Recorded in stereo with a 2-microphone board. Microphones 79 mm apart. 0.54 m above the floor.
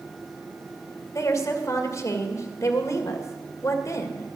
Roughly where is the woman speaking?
Left.